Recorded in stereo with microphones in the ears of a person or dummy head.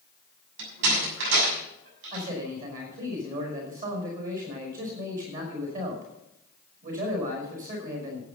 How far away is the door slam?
About 6.5 m.